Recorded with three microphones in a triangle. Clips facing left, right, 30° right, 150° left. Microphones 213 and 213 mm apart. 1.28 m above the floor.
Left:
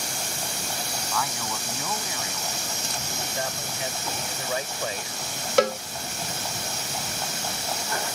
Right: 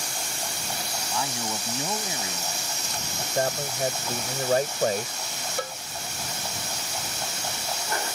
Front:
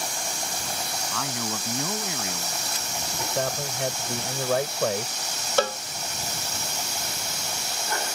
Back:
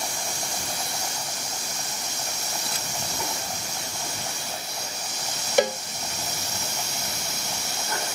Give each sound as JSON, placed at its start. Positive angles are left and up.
{"t": 1.1, "sound": "a man speaking", "azimuth_deg": -25}
{"t": 3.2, "sound": "a man speaking", "azimuth_deg": -45}
{"t": 5.6, "sound": "a cowbell", "azimuth_deg": 75}